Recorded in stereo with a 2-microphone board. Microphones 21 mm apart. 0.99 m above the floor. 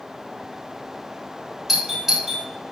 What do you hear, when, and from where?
1.7 s a doorbell: 5° right (ahead or behind), 4.5 m